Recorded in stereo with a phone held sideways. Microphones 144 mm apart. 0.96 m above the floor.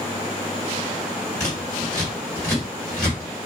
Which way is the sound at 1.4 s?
25° left (ahead or behind).